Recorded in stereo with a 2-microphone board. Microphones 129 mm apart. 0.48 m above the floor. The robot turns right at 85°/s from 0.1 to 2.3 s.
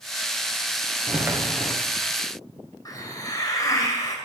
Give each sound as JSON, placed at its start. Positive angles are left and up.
{"t": 1.1, "sound": "footsteps", "azimuth_deg": -35, "distance_m": 2.0}
{"t": 2.9, "sound": "a hiss", "side_deg": 30, "distance_m": 2.5}